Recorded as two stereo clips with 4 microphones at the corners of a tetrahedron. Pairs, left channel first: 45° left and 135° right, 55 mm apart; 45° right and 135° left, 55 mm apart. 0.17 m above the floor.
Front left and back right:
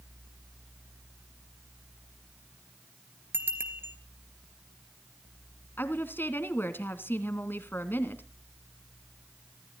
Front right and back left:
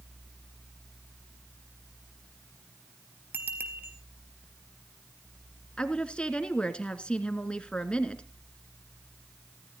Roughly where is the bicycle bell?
Behind.